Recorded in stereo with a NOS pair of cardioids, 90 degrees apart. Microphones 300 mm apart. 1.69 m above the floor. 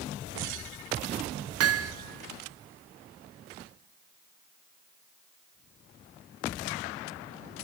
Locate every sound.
1.6 s hammering: 55° right, 1.6 m